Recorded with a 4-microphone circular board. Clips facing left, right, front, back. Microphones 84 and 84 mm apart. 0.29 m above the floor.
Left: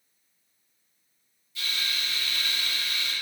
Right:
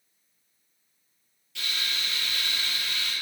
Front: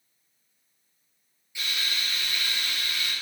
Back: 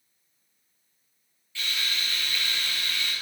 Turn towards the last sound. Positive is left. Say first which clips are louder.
# even, even
turn(degrees=-75)